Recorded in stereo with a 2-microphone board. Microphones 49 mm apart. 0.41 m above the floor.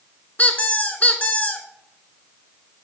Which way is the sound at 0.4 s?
40° left (ahead or behind).